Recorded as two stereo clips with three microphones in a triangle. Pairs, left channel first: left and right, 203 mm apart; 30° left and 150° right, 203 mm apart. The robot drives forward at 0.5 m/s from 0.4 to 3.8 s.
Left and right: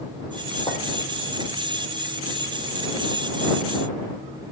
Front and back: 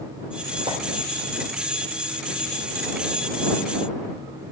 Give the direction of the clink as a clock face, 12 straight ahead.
7 o'clock.